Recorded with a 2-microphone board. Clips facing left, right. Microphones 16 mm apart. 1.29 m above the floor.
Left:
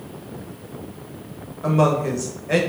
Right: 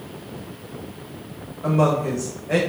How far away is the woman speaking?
About 1.0 m.